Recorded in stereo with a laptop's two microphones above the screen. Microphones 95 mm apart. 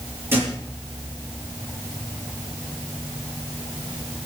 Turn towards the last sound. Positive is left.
turn(degrees=-25)  # may be behind; listen again after turning